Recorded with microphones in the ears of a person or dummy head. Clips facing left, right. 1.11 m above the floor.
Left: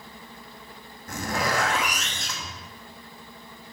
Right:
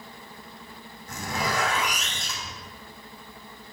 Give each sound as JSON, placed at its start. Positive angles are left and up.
{"t": 1.1, "sound": "a zipper", "side_deg": 50, "distance_m": 1.0}